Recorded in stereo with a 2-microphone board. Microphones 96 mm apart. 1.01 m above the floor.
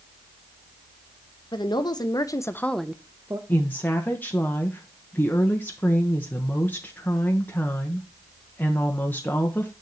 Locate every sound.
1.5 s a woman speaking: 50° left (ahead or behind), 1.1 m; by 3.4 s 30° right (ahead or behind), 0.7 m
3.5 s a woman speaking: 20° left (ahead or behind), 1.0 m